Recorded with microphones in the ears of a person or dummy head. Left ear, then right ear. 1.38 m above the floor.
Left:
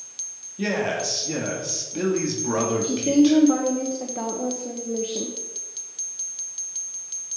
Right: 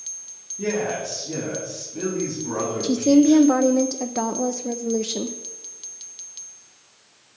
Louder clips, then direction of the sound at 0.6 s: Left 1 dB; 70° left (ahead or behind).